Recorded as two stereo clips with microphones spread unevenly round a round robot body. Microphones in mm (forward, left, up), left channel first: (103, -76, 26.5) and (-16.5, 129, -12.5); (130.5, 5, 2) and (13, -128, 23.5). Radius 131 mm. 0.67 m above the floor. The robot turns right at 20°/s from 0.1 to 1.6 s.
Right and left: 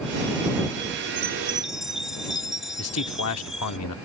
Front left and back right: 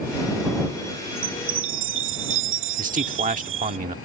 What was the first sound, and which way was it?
A chime, 160° right.